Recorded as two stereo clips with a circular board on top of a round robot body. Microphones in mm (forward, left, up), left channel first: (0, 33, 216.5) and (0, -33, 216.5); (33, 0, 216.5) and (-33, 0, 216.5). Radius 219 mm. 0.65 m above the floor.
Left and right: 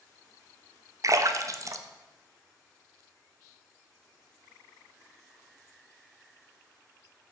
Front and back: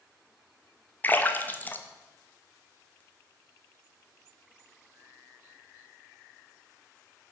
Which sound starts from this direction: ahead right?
A splash, at 1.0 s.